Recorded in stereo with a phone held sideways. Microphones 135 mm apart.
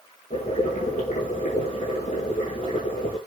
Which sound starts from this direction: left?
Boiling, at 0.3 s.